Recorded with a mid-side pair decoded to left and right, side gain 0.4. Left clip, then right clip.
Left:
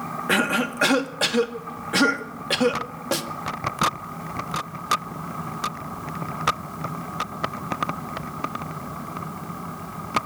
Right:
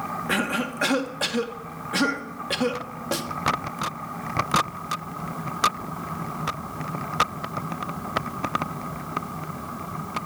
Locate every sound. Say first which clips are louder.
0.3 s a cough: left 5 dB; 30° left, 2.0 m
3.1 s a snare drum: left 2 dB; 20° left, 1.7 m